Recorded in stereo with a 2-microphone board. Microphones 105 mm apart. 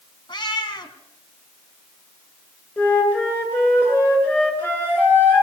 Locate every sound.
0.3 s a cat meowing: 45° left (ahead or behind), 2.5 m
2.8 s a flute: 20° left (ahead or behind), 8 m